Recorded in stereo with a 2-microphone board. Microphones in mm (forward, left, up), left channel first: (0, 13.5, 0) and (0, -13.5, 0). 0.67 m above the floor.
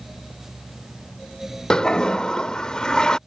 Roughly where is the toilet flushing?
Left.